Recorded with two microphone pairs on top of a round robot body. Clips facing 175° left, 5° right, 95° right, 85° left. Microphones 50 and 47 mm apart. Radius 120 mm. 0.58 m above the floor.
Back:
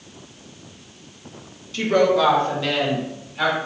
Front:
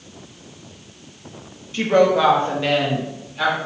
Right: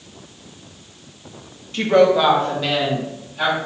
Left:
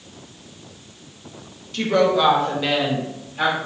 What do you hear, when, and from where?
1.7 s a woman speaking: 50° right, 1.4 m; by 3.6 s 80° left, 1.6 m